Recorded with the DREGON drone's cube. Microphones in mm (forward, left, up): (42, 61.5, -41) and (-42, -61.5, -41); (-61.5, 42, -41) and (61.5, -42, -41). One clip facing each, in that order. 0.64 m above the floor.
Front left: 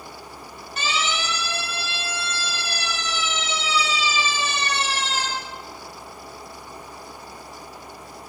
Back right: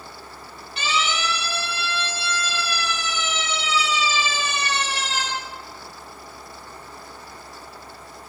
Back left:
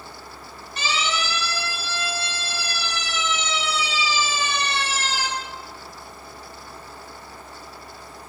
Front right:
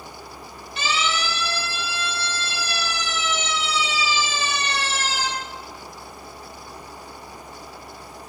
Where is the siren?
100° left, 8.5 m; by 5.3 s 115° left, 11.5 m.